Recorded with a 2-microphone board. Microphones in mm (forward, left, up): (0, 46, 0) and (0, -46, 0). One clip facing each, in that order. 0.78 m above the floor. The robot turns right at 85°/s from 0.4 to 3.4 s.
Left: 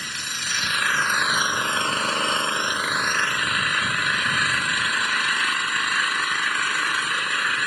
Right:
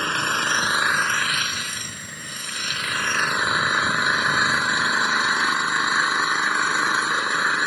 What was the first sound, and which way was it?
An engine running, 55° right.